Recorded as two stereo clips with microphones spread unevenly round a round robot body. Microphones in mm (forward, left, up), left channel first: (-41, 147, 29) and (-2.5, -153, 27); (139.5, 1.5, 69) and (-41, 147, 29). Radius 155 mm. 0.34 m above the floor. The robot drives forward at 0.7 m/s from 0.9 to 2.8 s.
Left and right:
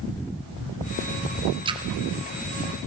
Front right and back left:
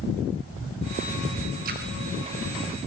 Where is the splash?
155° right, 1.4 m; by 1.8 s 160° right, 1.5 m.